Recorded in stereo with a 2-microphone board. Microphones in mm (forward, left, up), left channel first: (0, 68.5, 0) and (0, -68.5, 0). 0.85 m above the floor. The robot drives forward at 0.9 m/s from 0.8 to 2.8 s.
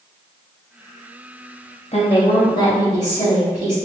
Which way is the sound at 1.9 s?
50° left (ahead or behind).